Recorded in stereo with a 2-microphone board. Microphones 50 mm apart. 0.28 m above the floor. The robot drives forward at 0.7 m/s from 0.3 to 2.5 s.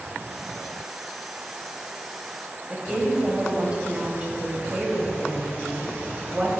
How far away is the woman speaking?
About 1.2 m.